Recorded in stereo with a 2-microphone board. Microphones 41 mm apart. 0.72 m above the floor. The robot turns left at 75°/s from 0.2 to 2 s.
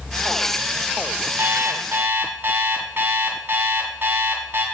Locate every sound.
1.4 s an alarm clock: 70° right, 2 m; by 4.7 s 115° right, 2 m